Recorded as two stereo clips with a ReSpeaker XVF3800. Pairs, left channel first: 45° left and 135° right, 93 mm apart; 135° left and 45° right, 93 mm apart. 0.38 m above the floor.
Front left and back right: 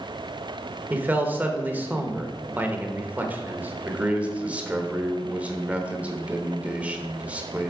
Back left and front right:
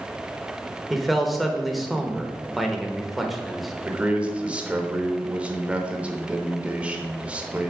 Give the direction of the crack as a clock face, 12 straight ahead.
No crack in this recording.